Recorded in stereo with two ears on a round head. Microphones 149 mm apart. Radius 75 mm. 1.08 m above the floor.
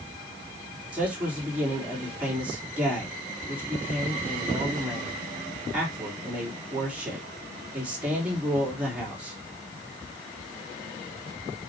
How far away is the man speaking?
About 3 m.